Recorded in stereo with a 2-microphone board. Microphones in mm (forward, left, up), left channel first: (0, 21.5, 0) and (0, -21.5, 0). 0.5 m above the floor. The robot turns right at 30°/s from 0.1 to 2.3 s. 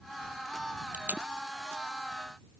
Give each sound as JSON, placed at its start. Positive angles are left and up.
{"t": 0.9, "sound": "tape being pulled", "side_deg": -35}